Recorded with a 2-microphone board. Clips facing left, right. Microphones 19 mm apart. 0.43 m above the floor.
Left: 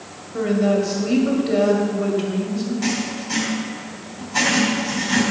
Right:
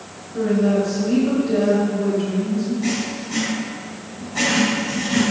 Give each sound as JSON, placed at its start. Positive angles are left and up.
{"t": 0.3, "sound": "a woman speaking", "side_deg": 50, "distance_m": 2.0}
{"t": 2.8, "sound": "writing", "side_deg": 65, "distance_m": 3.5}